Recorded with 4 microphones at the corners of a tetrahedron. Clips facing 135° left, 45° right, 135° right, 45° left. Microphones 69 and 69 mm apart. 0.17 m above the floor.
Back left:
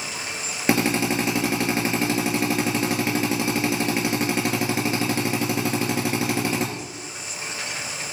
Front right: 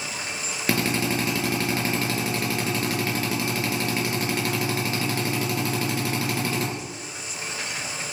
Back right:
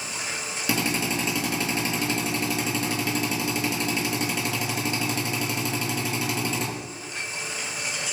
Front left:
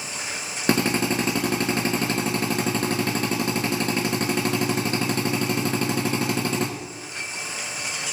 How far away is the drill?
About 2 m.